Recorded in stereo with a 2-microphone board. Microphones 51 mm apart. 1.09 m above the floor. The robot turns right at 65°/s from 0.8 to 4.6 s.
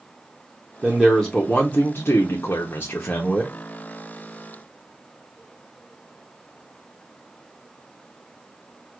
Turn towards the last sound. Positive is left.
turn(degrees=-130)